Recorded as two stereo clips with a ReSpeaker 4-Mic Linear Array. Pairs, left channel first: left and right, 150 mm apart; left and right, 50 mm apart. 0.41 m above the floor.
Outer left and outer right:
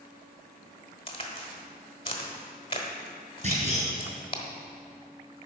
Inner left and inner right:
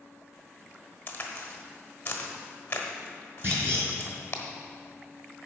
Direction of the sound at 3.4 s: 45° right (ahead or behind).